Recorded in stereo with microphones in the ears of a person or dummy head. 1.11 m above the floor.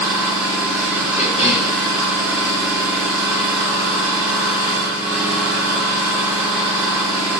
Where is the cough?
30° left (ahead or behind), 2 m.